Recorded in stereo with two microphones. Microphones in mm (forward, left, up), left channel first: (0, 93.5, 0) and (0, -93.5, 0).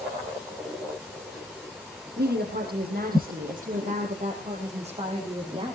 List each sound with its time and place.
2.2 s a woman speaking: 60° right (ahead or behind), 5 m; by 5.8 s 30° right (ahead or behind), 5.5 m